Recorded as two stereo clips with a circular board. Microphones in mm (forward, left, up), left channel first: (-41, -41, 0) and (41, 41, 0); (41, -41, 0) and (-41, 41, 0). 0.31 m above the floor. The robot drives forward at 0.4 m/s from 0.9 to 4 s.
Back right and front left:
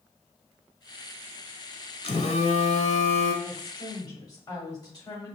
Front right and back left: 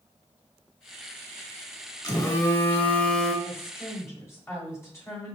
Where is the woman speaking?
90° right, 1.6 m; by 5.4 s 100° right, 1.7 m.